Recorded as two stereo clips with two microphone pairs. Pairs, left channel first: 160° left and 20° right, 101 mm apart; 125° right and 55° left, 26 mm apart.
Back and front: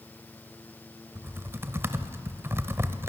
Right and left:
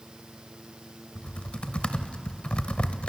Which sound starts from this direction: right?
Typing on a keyboard, at 1.1 s.